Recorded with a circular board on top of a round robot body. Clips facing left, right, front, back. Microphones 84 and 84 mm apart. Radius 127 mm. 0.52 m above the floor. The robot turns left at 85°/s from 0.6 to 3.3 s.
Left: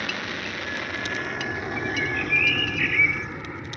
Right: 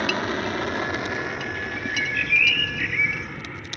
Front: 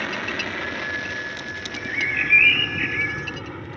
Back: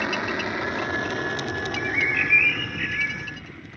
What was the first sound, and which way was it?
An aircraft, 115° right.